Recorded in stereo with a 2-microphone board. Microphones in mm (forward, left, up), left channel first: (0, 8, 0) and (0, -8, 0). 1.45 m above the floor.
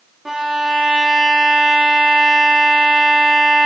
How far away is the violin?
About 0.7 m.